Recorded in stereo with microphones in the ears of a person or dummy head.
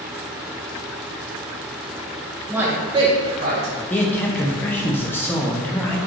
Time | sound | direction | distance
2.5 | a man speaking | centre (ahead or behind) | 1.2 m
3.9 | a man speaking | 10° left (ahead or behind) | 0.6 m